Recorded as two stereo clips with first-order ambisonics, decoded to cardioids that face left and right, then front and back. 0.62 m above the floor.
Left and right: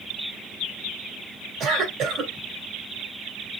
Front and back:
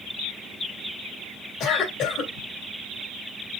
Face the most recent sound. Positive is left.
turn(degrees=-40)